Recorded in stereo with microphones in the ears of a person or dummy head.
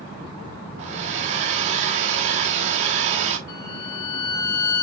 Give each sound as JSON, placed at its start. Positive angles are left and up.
{"t": 0.8, "sound": "a hair dryer", "side_deg": -45, "distance_m": 1.3}
{"t": 3.5, "sound": "a violin", "side_deg": 25, "distance_m": 3.5}